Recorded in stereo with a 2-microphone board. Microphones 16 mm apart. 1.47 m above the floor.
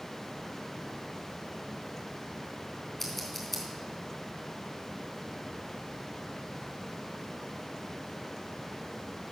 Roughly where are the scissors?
Centre.